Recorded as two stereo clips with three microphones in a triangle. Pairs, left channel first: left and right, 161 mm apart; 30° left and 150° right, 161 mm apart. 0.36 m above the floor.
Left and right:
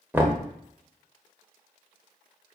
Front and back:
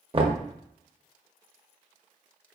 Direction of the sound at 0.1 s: 160° right.